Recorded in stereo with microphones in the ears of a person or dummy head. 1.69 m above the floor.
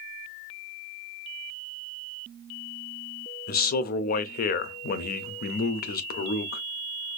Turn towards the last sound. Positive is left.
turn(degrees=50)  # may be behind; listen again after turning